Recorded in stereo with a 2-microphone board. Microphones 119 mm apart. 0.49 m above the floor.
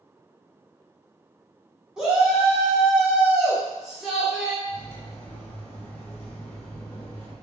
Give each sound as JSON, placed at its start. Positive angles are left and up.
{"t": 2.0, "sound": "a shout", "side_deg": -5, "distance_m": 0.9}
{"t": 4.7, "sound": "cutlery clinking", "side_deg": 20, "distance_m": 0.9}